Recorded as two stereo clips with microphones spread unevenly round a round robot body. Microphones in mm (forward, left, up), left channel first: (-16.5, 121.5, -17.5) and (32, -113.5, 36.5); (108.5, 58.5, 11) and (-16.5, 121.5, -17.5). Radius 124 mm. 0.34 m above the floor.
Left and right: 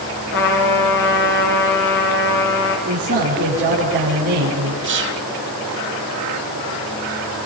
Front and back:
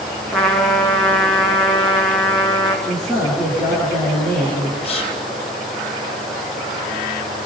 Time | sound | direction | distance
0.3 | a trumpet | 60° left | 4.5 m
2.9 | a man speaking | 135° right | 8 m
4.8 | whispering | 65° right | 1.2 m